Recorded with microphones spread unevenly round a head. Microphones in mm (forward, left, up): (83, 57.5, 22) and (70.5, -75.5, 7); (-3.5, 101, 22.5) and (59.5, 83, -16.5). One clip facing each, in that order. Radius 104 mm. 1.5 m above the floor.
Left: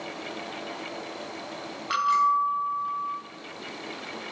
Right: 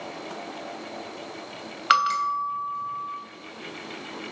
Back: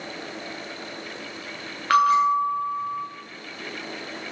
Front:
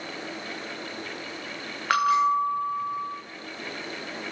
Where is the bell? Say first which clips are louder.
Even, back 3 dB; 115° right, 2.5 m.